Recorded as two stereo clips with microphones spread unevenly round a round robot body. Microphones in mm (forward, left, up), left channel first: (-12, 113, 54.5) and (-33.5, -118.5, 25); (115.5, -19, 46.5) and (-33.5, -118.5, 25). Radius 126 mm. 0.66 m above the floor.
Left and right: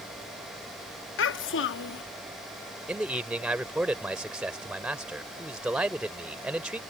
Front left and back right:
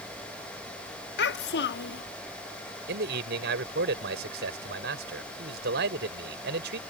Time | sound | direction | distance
1.2 | a child speaking | 50° left | ?
2.9 | a man speaking | straight behind | ?